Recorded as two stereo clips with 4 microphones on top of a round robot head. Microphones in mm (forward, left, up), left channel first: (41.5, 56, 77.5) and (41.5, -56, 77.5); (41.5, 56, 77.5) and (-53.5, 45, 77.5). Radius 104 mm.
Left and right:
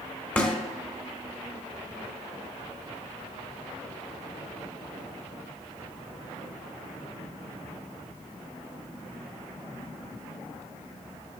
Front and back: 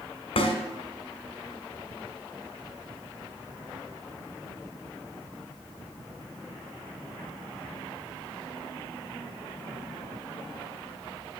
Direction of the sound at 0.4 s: 10° left.